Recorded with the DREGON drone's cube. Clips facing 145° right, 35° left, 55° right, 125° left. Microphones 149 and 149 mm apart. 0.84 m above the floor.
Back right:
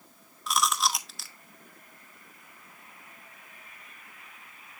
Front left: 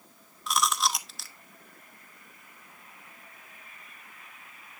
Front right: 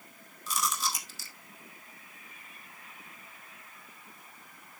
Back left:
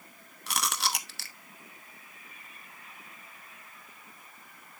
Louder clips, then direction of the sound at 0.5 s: Even, even; 125° left.